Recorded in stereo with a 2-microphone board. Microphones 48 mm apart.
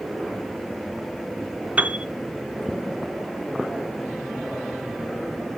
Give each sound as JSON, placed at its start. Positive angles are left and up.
{"t": 1.8, "sound": "a piano", "side_deg": -35, "distance_m": 0.5}